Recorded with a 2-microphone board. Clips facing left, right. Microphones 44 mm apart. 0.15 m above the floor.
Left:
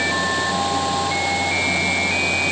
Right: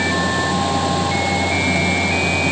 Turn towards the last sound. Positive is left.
No sound to turn to.